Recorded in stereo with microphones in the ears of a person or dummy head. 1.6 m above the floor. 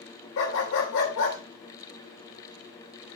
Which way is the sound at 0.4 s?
65° left (ahead or behind).